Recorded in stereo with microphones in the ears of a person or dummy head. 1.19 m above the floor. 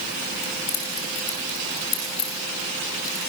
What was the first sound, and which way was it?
Keys jangling, 45° left (ahead or behind).